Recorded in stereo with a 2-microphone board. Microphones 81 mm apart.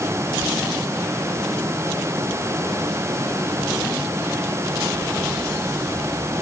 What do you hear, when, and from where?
Only background noise.